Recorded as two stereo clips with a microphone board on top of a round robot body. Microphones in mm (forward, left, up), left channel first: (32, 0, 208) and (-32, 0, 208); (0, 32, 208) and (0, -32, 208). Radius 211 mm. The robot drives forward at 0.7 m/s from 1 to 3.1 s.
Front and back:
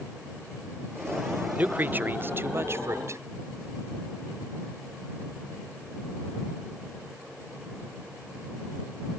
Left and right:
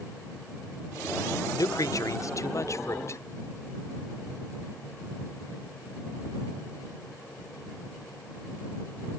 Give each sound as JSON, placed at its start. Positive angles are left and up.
{"t": 1.5, "sound": "a man speaking", "azimuth_deg": 115}